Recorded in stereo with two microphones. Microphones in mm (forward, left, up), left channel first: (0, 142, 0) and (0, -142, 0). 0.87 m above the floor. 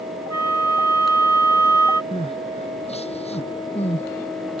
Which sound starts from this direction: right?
A flute, at 0.3 s.